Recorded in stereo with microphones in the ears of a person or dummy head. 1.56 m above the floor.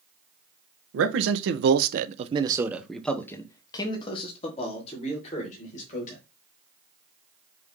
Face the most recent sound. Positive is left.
turn(degrees=40)  # may be behind; listen again after turning